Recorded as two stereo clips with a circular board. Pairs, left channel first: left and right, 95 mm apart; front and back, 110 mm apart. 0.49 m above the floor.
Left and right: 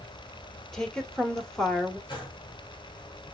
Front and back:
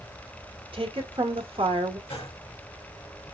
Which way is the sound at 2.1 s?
50° left.